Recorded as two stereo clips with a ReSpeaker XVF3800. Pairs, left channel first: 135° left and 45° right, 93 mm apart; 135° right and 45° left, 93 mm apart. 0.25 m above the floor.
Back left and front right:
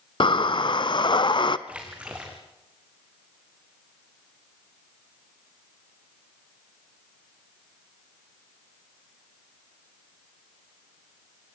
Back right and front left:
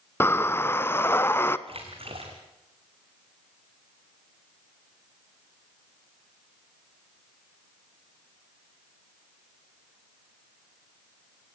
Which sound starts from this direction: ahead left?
A splash, at 1.7 s.